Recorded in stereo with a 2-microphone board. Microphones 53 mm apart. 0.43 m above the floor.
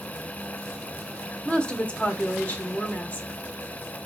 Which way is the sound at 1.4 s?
20° left (ahead or behind).